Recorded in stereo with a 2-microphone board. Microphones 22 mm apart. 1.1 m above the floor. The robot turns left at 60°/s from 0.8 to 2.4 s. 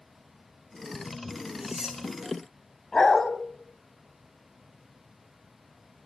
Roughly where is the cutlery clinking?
Right.